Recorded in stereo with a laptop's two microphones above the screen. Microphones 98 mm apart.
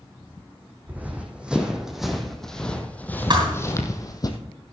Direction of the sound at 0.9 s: 15° right (ahead or behind).